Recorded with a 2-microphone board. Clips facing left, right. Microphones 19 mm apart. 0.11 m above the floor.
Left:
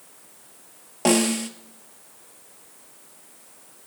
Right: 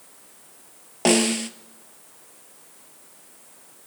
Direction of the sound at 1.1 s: 15° right (ahead or behind).